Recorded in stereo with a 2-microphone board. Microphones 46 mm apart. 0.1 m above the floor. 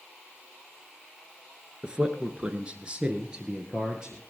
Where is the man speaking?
20° right (ahead or behind), 1.5 m; by 4.2 s 15° right (ahead or behind), 2 m.